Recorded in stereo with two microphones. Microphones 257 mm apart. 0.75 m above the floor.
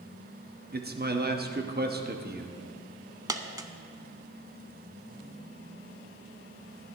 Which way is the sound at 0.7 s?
40° right (ahead or behind).